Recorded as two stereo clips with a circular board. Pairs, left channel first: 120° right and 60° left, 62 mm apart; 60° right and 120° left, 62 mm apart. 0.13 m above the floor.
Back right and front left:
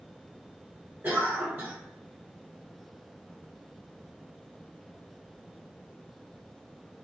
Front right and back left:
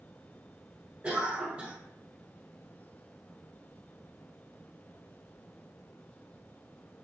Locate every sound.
1.0 s a cough: 80° left, 1.2 m